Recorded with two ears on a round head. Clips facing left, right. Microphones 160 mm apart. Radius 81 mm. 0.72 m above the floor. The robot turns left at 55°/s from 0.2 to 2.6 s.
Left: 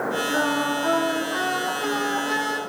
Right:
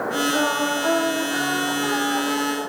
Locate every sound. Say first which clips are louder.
0.3 s singing: right 1 dB; 95° right, 9 m; by 2.6 s 140° left, 9 m